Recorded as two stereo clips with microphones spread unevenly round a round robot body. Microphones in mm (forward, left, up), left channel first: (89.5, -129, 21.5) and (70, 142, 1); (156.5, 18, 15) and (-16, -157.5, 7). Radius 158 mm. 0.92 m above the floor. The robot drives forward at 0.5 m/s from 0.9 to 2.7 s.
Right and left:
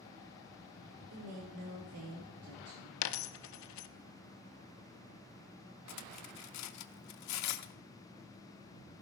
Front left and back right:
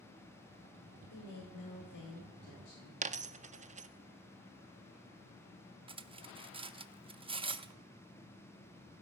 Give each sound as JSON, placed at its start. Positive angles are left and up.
{"t": 1.1, "sound": "a woman speaking", "azimuth_deg": 65, "distance_m": 2.5}
{"t": 3.0, "sound": "a dropped coin", "azimuth_deg": -70, "distance_m": 0.5}
{"t": 5.9, "sound": "cutlery clinking", "azimuth_deg": -60, "distance_m": 0.6}